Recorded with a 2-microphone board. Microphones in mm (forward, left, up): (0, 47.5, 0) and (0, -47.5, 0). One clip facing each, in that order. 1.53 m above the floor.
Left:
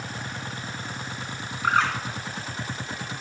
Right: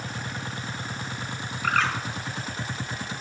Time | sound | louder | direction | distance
1.6 | a bird | left 2 dB | 25° left (ahead or behind) | 1.4 m